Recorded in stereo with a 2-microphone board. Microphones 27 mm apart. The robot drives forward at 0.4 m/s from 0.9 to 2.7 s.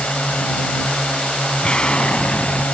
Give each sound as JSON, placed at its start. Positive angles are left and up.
{"t": 0.0, "sound": "a drone", "side_deg": 60}
{"t": 1.6, "sound": "an explosion", "side_deg": 35}